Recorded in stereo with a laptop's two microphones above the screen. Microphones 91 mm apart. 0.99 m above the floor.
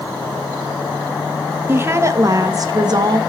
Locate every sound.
1.7 s a woman speaking: 25° right (ahead or behind), 1.1 m; by 3.2 s 50° right (ahead or behind), 1.6 m